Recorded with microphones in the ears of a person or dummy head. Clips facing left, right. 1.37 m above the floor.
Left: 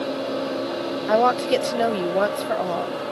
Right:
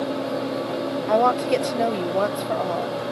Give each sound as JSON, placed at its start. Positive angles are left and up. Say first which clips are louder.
{"t": 1.1, "sound": "a woman speaking", "louder": "left 1 dB", "side_deg": 10}